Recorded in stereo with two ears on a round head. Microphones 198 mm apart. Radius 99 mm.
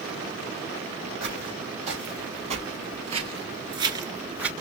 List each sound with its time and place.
1.2 s footsteps: 30° right (ahead or behind), 4.5 m; by 4.5 s 5° right (ahead or behind), 1.6 m